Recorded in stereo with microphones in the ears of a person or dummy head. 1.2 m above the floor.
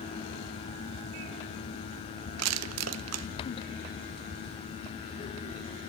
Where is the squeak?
No squeak in this recording.